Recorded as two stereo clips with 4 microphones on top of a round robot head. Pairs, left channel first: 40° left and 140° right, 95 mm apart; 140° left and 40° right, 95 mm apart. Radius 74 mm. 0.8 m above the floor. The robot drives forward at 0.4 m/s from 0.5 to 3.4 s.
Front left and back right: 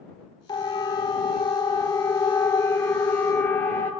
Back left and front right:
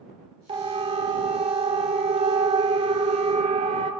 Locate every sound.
0.5 s a siren: 10° right, 4 m; by 3.9 s 35° right, 4 m